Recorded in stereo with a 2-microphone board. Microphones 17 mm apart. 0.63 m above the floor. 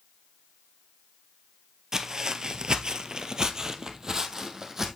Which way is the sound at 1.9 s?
35° right (ahead or behind).